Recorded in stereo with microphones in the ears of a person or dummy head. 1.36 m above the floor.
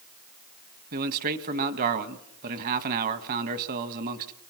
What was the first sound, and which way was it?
A man speaking, 45° right (ahead or behind).